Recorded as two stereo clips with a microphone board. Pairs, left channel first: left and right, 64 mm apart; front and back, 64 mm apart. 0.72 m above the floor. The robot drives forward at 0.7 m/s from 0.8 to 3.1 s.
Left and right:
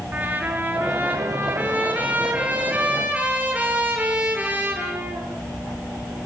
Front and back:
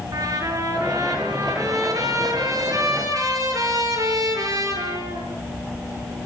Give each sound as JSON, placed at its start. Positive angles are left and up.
{"t": 0.1, "sound": "a trumpet", "azimuth_deg": -155, "distance_m": 7.0}